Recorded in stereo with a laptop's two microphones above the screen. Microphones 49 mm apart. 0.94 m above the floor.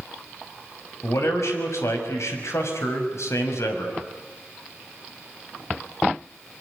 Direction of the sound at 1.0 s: 70° left (ahead or behind).